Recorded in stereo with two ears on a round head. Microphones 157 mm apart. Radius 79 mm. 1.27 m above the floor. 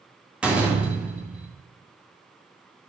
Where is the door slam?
5° right (ahead or behind), 1.8 m.